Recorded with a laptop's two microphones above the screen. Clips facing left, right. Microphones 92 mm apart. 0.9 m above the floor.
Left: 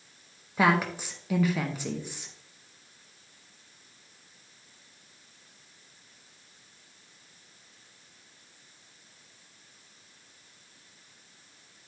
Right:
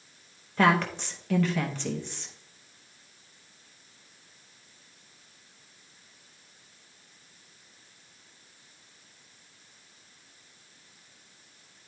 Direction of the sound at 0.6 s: 10° left (ahead or behind).